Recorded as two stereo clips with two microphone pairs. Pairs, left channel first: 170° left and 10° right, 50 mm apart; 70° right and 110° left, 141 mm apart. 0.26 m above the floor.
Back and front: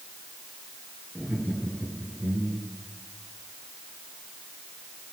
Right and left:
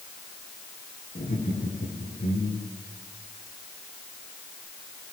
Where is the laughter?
80° right, 5 m; by 2.7 s 60° right, 5.5 m.